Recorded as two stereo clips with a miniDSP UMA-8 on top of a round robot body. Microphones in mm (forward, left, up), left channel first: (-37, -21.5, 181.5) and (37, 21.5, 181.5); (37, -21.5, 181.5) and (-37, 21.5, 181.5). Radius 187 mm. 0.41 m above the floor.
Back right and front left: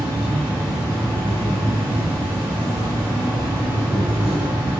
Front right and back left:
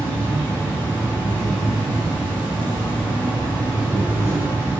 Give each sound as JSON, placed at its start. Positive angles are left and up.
{"t": 0.0, "sound": "an insect", "azimuth_deg": 95, "distance_m": 1.8}